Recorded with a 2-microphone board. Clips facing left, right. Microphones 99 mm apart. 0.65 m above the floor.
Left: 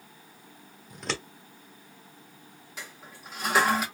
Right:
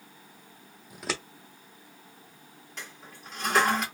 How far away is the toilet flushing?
About 1.2 m.